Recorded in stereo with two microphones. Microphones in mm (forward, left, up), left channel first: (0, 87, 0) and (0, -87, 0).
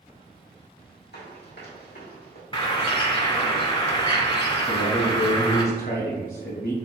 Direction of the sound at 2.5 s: 30° left (ahead or behind).